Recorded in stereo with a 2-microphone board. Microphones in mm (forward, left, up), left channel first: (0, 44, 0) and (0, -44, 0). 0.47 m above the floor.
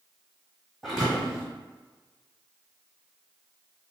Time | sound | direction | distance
0.8 | a thud | centre (ahead or behind) | 1.7 m